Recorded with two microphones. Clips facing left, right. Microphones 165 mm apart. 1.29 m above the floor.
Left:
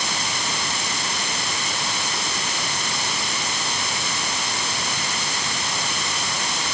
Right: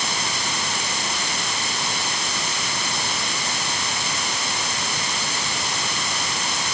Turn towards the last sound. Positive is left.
No sound to turn to.